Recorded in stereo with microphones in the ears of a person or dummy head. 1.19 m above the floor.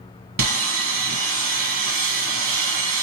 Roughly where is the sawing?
Right.